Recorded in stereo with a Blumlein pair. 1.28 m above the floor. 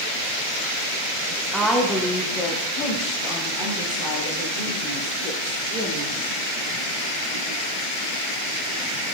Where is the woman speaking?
10° right, 0.7 m; by 6.1 s 50° left, 3 m.